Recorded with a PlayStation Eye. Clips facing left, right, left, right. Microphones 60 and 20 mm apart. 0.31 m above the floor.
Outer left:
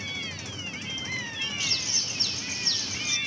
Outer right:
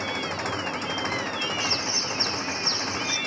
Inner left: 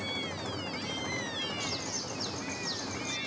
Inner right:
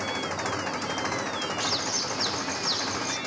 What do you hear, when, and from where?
0.0 s an engine running: 65° right (ahead or behind)
1.6 s a bird: 40° right (ahead or behind)